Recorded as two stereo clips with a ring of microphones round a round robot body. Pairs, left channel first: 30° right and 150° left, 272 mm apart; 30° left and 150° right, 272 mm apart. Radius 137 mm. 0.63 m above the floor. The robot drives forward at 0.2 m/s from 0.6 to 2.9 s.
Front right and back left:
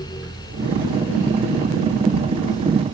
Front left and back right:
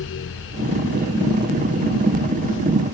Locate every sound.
Only background noise.